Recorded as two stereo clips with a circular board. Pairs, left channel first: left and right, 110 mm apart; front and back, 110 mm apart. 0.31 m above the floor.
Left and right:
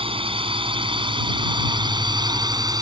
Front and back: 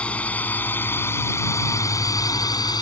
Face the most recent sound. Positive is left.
turn(degrees=-45)